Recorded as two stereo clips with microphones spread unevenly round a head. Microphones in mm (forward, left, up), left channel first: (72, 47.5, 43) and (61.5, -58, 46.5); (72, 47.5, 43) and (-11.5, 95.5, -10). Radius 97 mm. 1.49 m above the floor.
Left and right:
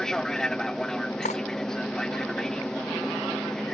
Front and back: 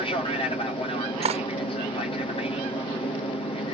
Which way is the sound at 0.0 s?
5° left.